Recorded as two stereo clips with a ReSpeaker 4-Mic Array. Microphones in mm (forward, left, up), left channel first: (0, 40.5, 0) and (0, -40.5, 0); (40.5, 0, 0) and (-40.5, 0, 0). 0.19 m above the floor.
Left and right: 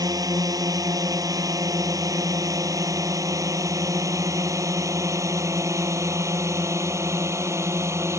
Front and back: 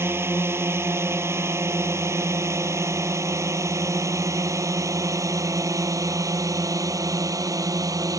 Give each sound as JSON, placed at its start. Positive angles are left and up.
{"t": 0.0, "sound": "a drone", "azimuth_deg": -125}